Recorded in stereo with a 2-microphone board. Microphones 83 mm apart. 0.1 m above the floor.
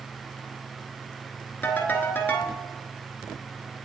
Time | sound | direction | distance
1.6 | a ringtone | 25° left (ahead or behind) | 0.8 m